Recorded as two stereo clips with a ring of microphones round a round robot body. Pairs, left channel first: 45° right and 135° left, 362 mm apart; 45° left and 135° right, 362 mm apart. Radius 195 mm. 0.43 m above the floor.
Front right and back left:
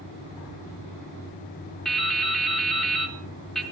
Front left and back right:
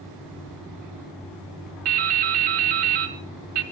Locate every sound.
1.9 s dripping: 135° right, 2 m